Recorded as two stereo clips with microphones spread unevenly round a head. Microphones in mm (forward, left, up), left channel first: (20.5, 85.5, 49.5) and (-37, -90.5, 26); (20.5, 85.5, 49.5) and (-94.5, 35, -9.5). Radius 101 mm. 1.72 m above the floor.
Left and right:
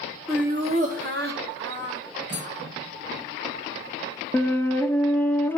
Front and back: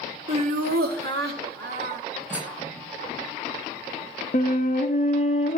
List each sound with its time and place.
0.3 s laughter: 145° left, 0.6 m; by 2.6 s 135° right, 2.5 m
2.3 s cutlery clinking: 75° right, 5 m
4.3 s a flute: 5° right, 0.5 m